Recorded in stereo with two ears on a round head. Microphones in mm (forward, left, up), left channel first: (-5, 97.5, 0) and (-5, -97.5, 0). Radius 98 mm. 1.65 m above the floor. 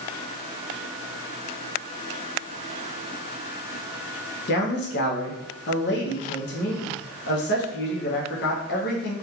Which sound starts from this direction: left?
A man speaking, at 4.5 s.